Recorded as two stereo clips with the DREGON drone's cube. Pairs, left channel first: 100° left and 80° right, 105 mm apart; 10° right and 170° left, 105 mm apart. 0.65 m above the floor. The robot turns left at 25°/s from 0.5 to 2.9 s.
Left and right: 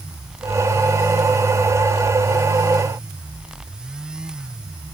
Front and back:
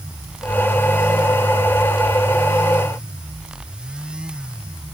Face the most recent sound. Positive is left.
No sound to turn to.